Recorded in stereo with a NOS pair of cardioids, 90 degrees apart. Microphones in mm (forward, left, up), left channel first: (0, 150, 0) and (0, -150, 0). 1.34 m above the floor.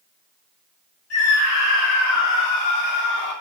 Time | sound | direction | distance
1.1 | a scream | 55° left | 3.5 m